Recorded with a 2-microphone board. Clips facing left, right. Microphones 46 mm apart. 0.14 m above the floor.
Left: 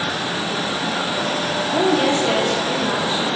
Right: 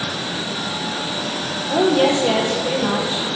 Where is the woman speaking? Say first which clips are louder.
Right 3 dB; 25° right (ahead or behind), 4 m.